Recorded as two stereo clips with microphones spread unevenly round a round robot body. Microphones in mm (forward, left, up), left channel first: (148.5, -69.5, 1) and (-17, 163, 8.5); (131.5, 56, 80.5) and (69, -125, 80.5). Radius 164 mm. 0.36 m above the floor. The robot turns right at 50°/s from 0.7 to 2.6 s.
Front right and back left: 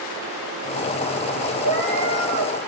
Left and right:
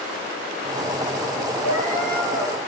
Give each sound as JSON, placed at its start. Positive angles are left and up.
{"t": 1.6, "sound": "a cat meowing", "azimuth_deg": 85, "distance_m": 6.0}